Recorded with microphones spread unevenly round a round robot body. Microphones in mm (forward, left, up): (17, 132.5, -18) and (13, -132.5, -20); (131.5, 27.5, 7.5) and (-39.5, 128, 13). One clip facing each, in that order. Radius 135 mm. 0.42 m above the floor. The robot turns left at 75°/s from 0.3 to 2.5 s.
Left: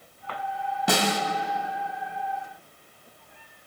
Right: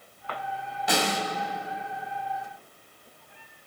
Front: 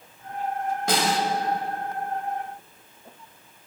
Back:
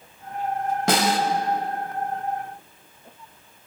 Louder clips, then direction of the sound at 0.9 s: Left 2 dB, back 3 dB; 135° left.